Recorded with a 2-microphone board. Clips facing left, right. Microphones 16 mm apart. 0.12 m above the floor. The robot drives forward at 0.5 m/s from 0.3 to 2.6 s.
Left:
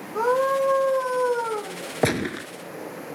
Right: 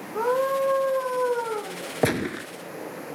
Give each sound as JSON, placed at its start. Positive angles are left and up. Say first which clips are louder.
{"t": 0.1, "sound": "a scream", "louder": "left 2 dB", "side_deg": 35, "distance_m": 6.5}
{"t": 2.0, "sound": "a gunshot", "louder": "left 1 dB", "side_deg": 25, "distance_m": 1.1}